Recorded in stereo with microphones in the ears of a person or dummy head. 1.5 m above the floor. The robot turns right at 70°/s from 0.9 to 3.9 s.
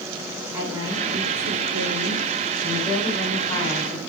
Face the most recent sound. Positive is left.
turn(degrees=45)